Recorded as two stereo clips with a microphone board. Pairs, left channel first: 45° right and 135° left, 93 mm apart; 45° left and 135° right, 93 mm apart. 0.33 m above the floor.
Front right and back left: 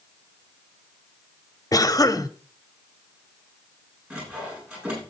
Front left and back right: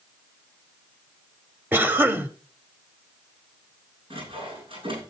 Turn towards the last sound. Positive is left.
turn(degrees=-150)